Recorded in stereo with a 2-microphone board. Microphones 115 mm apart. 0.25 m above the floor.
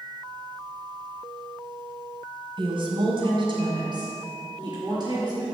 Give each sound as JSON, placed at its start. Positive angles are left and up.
{"t": 2.6, "sound": "a woman speaking", "side_deg": -50, "distance_m": 1.8}